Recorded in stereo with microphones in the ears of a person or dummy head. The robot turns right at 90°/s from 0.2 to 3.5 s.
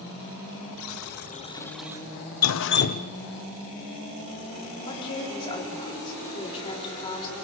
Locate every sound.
0.8 s a buzzer: 90° left, 1.2 m; by 2.1 s 155° right, 1.2 m
2.4 s dripping: 90° left, 0.6 m; by 3.1 s 155° left, 0.6 m
4.9 s a woman speaking: 30° left (ahead or behind), 3.5 m